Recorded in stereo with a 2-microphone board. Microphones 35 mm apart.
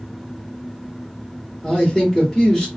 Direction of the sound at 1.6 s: 20° left (ahead or behind).